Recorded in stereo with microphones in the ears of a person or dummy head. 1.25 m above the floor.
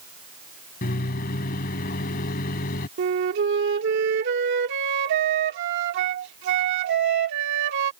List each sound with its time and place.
0.8 s a microwave: 50° left (ahead or behind)
3.0 s a flute: 65° right (ahead or behind)